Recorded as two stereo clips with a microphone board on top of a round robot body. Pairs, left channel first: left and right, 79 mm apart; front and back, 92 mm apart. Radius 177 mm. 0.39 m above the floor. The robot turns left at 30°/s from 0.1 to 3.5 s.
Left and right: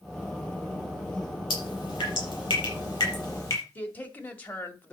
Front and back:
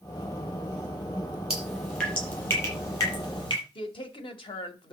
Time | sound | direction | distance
1.5 | dripping | 95° left | 7 m
3.8 | a woman speaking | 20° left | 2.5 m